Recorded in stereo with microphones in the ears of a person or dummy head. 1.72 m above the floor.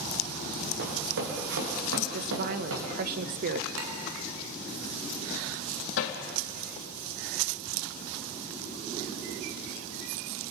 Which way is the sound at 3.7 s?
75° right (ahead or behind).